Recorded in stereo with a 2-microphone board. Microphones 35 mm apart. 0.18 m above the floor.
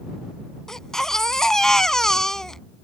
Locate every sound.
0.7 s a baby crying: 15° left (ahead or behind)